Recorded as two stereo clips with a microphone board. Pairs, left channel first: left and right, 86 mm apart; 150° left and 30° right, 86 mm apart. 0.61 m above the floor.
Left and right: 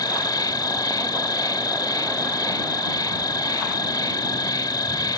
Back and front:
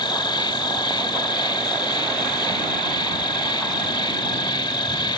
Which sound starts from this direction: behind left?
An insect, at 0.0 s.